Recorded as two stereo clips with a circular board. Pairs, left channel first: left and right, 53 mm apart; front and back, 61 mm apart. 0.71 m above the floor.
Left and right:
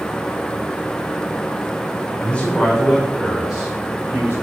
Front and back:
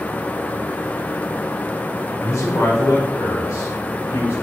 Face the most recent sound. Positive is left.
turn(degrees=-35)